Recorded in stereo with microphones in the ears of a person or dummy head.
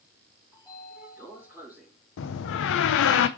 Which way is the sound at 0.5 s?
15° right (ahead or behind).